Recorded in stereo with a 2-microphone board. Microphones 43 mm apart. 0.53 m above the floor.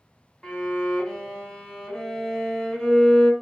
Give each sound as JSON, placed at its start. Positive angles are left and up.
{"t": 0.4, "sound": "a violin", "side_deg": 15, "distance_m": 0.6}